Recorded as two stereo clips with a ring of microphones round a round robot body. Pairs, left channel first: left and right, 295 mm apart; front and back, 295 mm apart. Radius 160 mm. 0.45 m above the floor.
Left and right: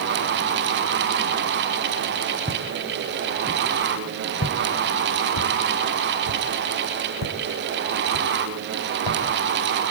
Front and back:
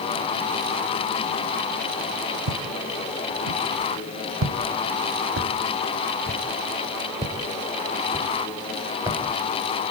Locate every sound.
2.5 s footsteps: 165° right, 1.5 m; by 9.2 s 100° left, 3.5 m